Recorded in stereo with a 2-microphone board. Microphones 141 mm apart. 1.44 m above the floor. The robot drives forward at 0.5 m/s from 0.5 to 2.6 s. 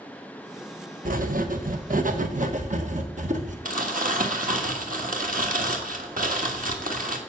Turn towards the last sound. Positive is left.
turn(degrees=-75)  # may be behind; listen again after turning